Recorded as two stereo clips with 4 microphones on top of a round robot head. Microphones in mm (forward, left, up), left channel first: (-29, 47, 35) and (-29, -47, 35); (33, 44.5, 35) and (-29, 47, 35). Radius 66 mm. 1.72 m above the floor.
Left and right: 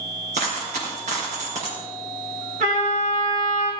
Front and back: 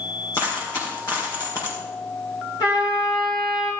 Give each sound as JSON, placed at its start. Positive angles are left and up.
{"t": 0.3, "sound": "a dropped coin", "azimuth_deg": -70, "distance_m": 3.5}
{"t": 2.6, "sound": "a trumpet", "azimuth_deg": -60, "distance_m": 3.5}